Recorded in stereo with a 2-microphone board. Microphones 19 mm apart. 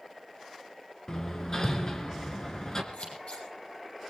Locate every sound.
1.1 s hammering: 30° left (ahead or behind), 2.5 m
2.9 s scissors: 75° left (ahead or behind), 8 m